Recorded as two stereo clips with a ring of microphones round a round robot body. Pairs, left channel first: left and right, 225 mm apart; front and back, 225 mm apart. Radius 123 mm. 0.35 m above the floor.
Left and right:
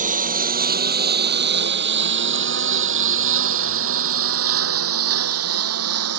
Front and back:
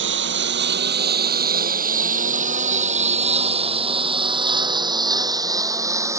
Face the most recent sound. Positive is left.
turn(degrees=-105)